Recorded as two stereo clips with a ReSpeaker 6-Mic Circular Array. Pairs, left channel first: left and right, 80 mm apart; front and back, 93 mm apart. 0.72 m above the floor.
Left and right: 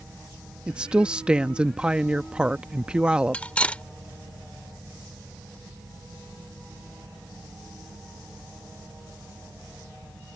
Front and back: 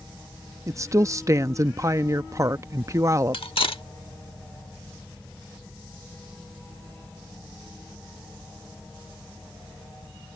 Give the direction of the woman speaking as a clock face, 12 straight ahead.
5 o'clock.